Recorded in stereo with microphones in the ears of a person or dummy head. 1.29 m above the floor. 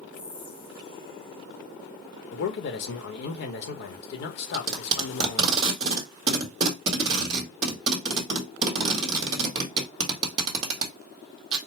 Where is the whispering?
25° left (ahead or behind), 1.0 m.